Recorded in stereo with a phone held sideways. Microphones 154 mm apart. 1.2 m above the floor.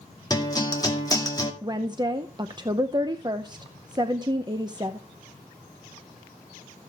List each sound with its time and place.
0.3 s a guitar: 25° left (ahead or behind), 2 m
1.6 s a woman speaking: 30° right (ahead or behind), 0.7 m